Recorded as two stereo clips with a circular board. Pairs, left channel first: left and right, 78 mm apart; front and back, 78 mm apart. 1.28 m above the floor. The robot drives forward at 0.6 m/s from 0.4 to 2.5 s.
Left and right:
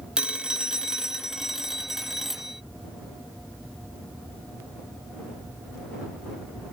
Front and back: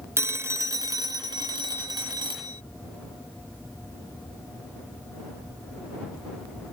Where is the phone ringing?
165° right; by 2.6 s 175° right.